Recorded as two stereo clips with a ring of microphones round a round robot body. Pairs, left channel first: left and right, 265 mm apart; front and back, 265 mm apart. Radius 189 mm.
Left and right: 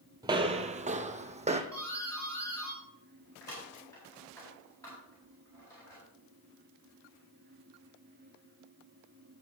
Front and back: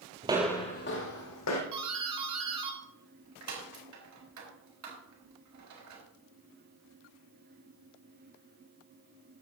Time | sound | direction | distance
0.2 | footsteps | 150° right | 0.6 m
1.7 | a doorbell | 170° left | 4 m